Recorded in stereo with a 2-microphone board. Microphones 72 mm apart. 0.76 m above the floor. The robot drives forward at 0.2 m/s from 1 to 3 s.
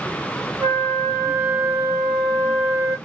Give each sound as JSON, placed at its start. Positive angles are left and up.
{"t": 0.6, "sound": "a flute", "side_deg": -25, "distance_m": 1.1}